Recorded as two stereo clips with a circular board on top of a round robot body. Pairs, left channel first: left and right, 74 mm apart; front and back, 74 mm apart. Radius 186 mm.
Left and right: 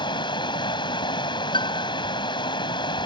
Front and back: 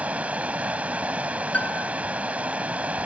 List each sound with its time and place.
0.0 s running water: 110° left
1.5 s a piano: 75° left